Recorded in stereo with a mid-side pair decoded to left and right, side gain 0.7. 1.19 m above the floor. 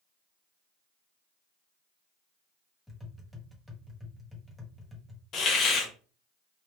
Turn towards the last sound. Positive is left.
turn(degrees=45)